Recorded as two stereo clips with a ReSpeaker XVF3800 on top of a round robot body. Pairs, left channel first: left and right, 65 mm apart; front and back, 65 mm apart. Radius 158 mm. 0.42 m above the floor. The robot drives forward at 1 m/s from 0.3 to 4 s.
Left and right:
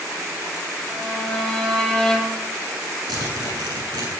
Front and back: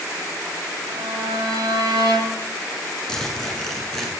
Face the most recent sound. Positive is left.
turn(degrees=-95)